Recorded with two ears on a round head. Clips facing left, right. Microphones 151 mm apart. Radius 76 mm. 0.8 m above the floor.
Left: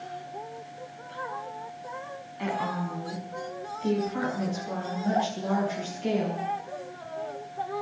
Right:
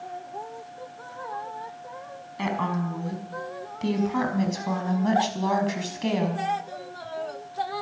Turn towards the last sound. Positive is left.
turn(degrees=-85)